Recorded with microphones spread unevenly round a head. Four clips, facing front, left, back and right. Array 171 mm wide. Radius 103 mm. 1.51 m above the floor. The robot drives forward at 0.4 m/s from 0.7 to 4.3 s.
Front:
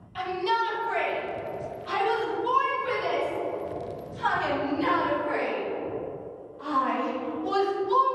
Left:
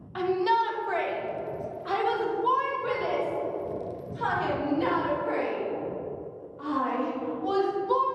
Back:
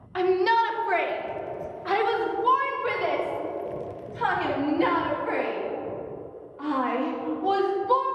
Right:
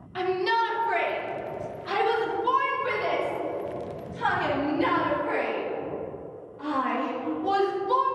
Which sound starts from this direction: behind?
A shout, at 0.1 s.